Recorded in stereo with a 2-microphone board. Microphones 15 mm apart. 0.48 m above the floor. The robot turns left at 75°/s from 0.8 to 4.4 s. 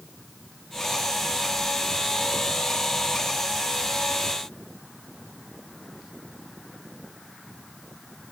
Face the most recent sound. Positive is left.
No sound to turn to.